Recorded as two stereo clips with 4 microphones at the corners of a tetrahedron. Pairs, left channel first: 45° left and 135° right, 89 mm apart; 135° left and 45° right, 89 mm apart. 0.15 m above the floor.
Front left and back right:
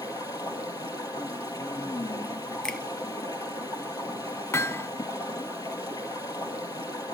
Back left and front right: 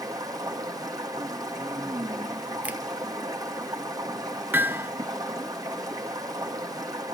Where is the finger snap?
20° right, 0.9 m.